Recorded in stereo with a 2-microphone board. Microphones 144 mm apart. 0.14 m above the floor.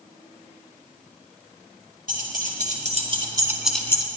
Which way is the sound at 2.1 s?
70° right (ahead or behind).